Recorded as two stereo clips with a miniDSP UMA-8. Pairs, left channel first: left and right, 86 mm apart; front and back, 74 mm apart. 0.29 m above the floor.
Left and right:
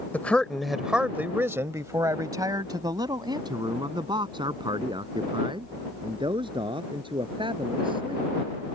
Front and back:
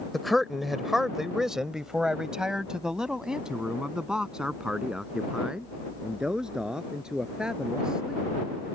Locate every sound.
0.1 s a man speaking: 90° left; by 8.3 s 100° right